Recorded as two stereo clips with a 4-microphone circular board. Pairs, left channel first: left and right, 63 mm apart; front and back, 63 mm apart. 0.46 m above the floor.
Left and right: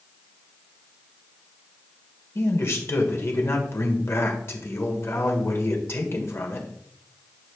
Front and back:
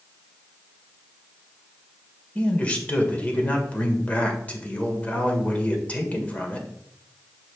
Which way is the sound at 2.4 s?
65° left.